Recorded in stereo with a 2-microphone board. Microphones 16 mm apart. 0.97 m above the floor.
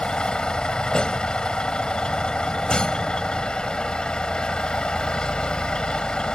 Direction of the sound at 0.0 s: 80° left.